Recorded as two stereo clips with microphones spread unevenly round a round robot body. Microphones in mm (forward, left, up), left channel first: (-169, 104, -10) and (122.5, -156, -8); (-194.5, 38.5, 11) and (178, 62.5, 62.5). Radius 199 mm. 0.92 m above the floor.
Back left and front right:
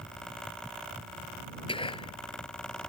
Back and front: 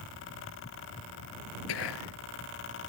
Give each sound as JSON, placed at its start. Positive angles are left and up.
{"t": 1.7, "sound": "whispering", "azimuth_deg": -145}